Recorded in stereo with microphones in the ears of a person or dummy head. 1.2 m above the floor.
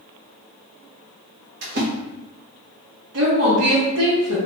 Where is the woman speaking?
80° right, 1.2 m.